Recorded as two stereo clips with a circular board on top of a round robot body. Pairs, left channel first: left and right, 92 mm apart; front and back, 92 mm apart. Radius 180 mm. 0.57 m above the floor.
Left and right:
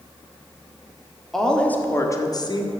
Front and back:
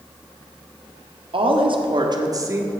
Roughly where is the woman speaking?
Behind.